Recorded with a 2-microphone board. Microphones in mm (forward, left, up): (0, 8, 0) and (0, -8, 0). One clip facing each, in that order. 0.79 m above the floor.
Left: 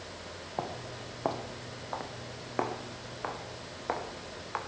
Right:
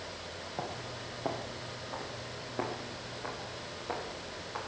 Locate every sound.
0.6 s footsteps: 55° left (ahead or behind), 1.9 m; by 4.6 s 75° left (ahead or behind), 3.5 m